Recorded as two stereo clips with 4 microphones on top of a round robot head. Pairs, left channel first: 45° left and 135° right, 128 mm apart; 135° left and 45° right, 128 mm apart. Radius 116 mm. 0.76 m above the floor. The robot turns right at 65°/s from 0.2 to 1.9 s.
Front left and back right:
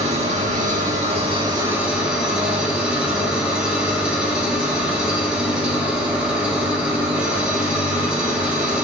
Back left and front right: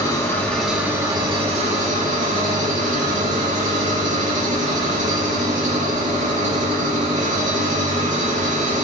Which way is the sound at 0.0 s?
165° right.